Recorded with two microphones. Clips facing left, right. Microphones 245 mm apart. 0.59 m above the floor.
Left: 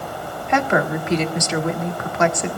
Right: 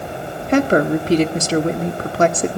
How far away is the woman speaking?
About 1.4 m.